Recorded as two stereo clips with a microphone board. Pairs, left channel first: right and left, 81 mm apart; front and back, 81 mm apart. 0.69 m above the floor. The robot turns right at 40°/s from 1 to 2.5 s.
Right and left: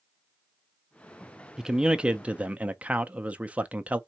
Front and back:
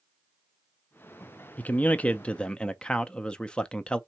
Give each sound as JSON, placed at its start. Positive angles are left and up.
{"t": 1.6, "sound": "a man speaking", "azimuth_deg": 20, "distance_m": 0.5}